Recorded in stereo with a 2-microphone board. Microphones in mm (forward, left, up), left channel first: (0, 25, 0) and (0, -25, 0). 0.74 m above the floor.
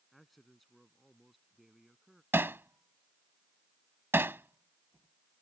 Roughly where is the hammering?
Right.